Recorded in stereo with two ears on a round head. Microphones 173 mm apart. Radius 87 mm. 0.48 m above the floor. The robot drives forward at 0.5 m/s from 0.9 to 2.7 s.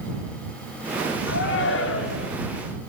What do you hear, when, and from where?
1.3 s a shout: 75° left (ahead or behind), 7.5 m; by 2.3 s 70° left (ahead or behind), 7.5 m